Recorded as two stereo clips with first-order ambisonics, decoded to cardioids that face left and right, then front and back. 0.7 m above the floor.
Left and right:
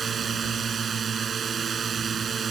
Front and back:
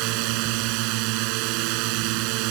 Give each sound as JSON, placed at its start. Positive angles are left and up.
{"t": 0.0, "sound": "a drone", "azimuth_deg": -160}